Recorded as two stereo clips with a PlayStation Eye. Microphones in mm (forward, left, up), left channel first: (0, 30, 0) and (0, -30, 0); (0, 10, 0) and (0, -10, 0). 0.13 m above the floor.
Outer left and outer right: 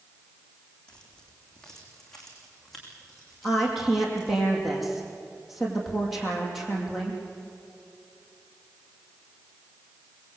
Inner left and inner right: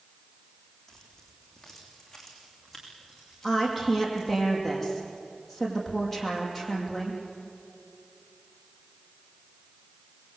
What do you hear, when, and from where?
0.9 s keys jangling: 15° left (ahead or behind), 5 m; by 4.4 s centre (ahead or behind), 8.5 m
3.4 s a woman speaking: centre (ahead or behind), 6 m